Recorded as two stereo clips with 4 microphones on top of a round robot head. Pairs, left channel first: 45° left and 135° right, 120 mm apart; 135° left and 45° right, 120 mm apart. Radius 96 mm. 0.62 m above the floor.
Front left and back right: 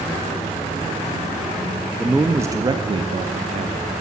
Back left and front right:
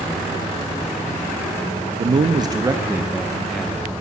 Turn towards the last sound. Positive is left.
turn(degrees=-145)